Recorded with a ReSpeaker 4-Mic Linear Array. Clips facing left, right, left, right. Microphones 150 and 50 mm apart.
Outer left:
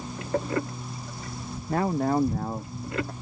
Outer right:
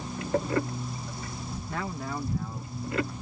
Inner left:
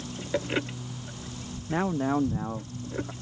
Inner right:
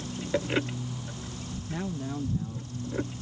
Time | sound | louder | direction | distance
1.7 | a man speaking | outer left 11 dB, inner left 9 dB | 40° left (ahead or behind) | ?